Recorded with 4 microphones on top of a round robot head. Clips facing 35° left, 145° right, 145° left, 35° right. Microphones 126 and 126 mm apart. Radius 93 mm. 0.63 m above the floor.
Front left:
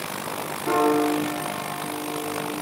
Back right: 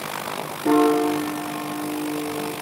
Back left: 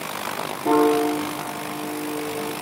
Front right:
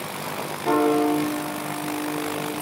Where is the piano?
145° right, 4.5 m.